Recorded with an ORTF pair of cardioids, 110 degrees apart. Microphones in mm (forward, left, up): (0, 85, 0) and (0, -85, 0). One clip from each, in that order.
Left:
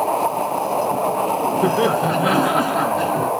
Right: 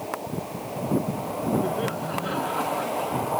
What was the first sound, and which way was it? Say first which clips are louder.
Laughter: left 10 dB; 65° left.